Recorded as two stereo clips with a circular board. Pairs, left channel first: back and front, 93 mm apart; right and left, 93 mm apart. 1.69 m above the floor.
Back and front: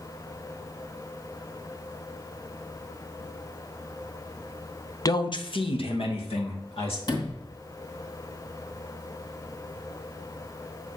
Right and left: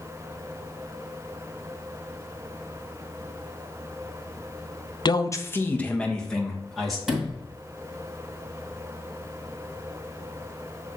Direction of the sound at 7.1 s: 170° left.